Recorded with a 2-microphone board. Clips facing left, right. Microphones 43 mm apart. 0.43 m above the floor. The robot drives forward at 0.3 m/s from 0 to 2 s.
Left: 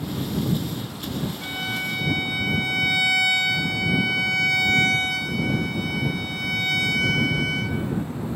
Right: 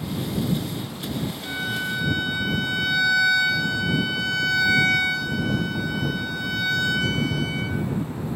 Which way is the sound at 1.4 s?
65° left (ahead or behind).